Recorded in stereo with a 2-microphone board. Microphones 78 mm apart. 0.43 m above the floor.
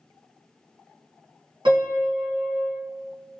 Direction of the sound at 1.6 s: 85° right.